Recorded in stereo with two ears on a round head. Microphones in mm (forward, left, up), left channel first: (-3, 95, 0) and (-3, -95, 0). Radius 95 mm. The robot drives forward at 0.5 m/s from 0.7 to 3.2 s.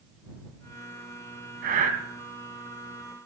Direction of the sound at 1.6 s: 45° right (ahead or behind).